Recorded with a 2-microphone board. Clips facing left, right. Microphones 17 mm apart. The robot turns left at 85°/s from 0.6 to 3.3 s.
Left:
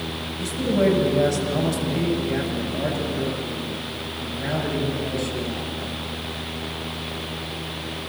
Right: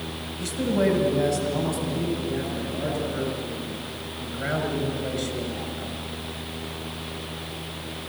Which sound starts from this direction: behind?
A man speaking, at 0.4 s.